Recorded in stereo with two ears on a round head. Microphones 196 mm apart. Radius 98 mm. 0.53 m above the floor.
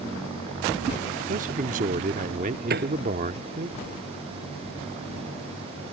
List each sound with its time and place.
1.3 s a man speaking: 40° right (ahead or behind)
2.7 s a piano: 50° right (ahead or behind)